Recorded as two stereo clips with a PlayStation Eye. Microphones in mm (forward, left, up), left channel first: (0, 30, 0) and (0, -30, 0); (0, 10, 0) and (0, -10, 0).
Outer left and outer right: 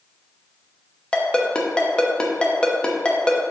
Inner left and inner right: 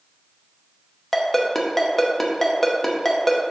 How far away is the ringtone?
About 0.9 m.